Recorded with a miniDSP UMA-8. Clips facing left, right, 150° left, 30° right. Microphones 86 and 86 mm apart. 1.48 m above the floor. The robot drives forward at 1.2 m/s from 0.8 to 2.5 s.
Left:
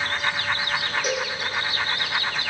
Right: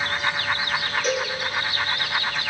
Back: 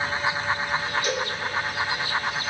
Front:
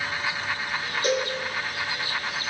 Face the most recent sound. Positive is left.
turn(degrees=145)